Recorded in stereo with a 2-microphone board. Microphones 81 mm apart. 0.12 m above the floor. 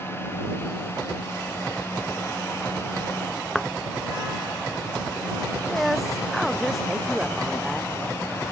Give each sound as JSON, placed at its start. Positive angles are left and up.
{"t": 3.5, "sound": "a thud", "side_deg": 5}
{"t": 5.7, "sound": "a woman speaking", "side_deg": 0}